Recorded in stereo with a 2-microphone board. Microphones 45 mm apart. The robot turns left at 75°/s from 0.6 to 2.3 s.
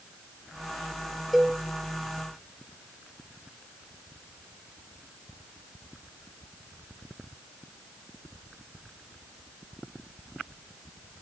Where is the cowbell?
5° right (ahead or behind), 0.6 m; by 1.6 s 10° left (ahead or behind), 0.6 m.